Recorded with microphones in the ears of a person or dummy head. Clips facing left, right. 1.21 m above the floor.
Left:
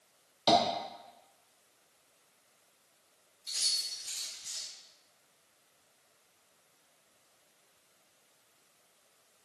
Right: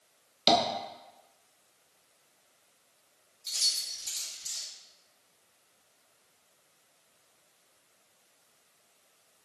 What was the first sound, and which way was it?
Tapping, 30° right (ahead or behind).